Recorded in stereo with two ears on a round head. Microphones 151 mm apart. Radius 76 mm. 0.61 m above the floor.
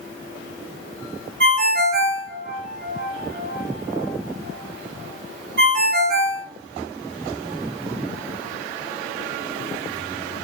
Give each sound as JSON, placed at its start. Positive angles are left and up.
{"t": 1.4, "sound": "a ringtone", "side_deg": -55, "distance_m": 1.5}